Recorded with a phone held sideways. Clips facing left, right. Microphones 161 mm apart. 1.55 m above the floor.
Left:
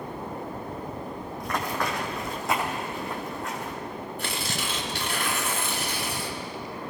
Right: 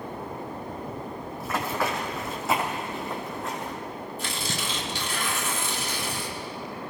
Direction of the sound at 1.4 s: 5° right (ahead or behind).